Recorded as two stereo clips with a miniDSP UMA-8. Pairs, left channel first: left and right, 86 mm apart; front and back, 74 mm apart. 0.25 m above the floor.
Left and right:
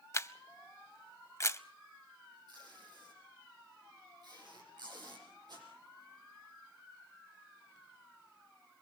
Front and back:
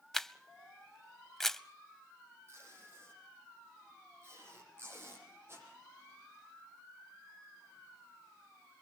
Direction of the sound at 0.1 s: 80° left.